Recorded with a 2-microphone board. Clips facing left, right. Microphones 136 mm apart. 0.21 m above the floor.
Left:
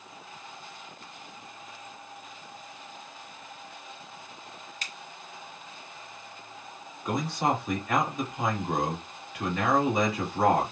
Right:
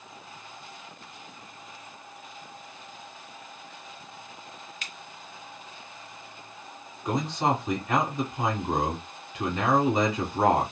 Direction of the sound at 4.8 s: 40° left (ahead or behind).